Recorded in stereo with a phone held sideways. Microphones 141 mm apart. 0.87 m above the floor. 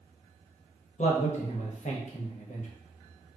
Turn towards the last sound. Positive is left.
turn(degrees=60)  # may be behind; listen again after turning